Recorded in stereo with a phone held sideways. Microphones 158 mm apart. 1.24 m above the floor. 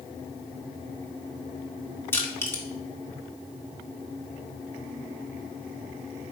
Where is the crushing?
15° left (ahead or behind), 1.9 m.